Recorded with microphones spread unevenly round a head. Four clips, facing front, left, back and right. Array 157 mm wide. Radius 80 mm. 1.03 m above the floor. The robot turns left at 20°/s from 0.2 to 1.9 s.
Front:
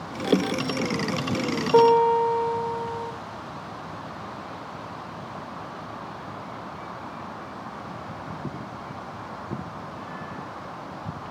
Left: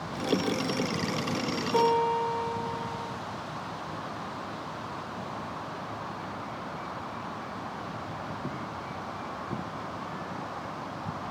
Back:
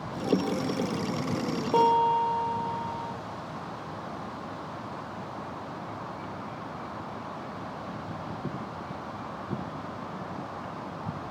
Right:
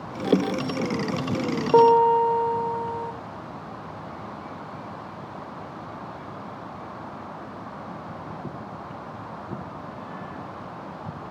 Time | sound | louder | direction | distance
1.7 | a piano | right 9 dB, front 6 dB | 90° right | 1.9 m